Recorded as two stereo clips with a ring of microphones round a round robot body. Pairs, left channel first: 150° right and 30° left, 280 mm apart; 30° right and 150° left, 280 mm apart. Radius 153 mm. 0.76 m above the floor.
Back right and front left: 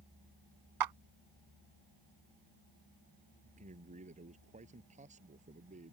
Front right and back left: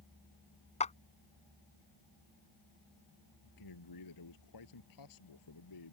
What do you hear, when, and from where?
0.8 s a clap: 40° left
3.4 s a man speaking: 35° right